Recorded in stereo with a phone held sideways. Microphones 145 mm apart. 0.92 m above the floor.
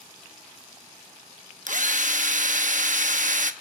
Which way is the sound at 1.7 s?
60° right (ahead or behind).